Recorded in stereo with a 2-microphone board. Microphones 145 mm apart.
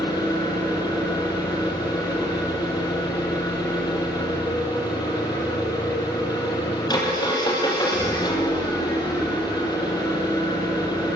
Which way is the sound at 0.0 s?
25° left (ahead or behind).